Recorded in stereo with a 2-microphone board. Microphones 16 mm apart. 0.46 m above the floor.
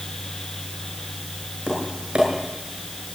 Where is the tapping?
75° right (ahead or behind), 8 m.